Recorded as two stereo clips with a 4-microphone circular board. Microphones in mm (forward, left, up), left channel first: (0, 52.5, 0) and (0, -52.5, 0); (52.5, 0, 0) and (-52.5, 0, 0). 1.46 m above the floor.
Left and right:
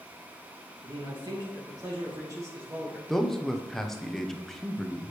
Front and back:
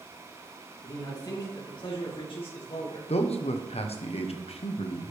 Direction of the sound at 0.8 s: 55° right.